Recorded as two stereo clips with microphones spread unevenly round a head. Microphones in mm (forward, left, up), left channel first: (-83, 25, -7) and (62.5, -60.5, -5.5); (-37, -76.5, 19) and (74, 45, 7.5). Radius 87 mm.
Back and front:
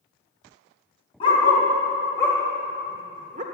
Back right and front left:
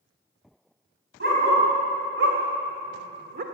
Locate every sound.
1.2 s a dog barking: 90° left, 3.5 m; by 3.4 s 15° left, 1.3 m